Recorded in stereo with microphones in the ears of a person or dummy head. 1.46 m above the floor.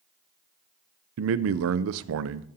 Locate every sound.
1.2 s a man speaking: 75° right (ahead or behind), 0.5 m